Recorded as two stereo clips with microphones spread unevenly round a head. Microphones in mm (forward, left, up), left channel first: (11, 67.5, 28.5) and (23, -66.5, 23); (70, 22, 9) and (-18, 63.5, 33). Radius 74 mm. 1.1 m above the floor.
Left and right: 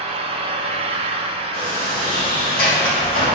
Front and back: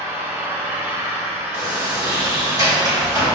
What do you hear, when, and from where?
0.0 s an engine running: 130° right, 0.8 m
1.5 s a sliding door: 100° left, 3 m